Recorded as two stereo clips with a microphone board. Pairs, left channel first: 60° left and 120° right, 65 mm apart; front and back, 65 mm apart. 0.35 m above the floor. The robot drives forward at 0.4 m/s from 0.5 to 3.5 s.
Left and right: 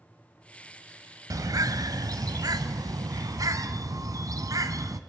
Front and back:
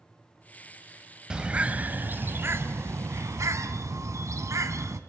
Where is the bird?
105° right, 0.9 m; by 5.0 s 145° right, 1.4 m.